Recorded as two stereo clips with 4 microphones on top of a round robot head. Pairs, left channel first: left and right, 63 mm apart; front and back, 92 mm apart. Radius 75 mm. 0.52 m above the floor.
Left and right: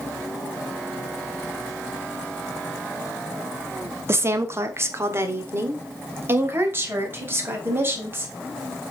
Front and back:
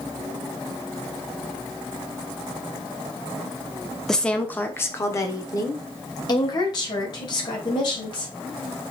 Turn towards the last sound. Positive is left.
turn(degrees=-40)